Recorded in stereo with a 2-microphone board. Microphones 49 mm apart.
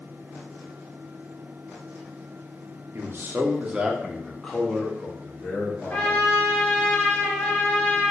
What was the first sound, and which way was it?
A man speaking, 50° right (ahead or behind).